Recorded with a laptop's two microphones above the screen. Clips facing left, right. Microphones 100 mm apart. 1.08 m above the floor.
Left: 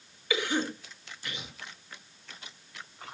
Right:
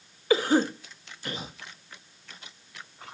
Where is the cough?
40° right (ahead or behind), 1.7 m.